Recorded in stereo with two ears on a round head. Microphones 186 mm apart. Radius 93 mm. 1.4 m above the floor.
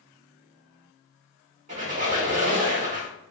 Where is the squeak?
35° right (ahead or behind), 1.3 m.